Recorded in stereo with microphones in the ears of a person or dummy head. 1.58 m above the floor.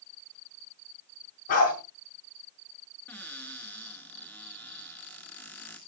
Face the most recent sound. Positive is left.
turn(degrees=20)  # may be behind; listen again after turning